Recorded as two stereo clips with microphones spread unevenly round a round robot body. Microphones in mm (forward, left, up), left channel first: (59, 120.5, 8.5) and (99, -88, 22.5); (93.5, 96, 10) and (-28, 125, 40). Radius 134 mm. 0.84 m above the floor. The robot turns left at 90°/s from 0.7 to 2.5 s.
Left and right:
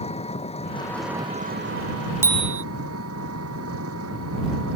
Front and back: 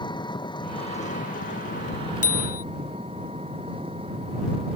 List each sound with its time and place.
0.0 s an engine running: 40° left; by 4.8 s 120° right
2.2 s a bicycle bell: straight ahead; by 2.6 s 25° right